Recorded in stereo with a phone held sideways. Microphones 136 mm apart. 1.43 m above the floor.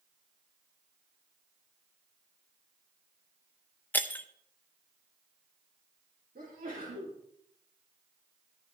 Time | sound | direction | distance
3.9 | breaking glass | 15° left (ahead or behind) | 0.6 m
6.3 | a sneeze | 80° right | 3 m